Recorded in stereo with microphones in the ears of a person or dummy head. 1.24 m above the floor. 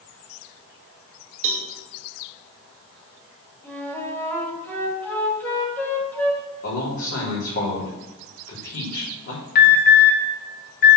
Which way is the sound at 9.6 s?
60° left (ahead or behind).